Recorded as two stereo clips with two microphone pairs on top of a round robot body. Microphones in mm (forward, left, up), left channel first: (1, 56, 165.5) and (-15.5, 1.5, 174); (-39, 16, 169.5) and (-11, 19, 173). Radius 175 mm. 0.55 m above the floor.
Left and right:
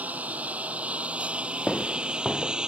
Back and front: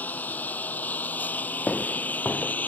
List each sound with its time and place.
0.0 s a lawn mower: 170° right; by 2.7 s straight behind
1.7 s footsteps: 160° left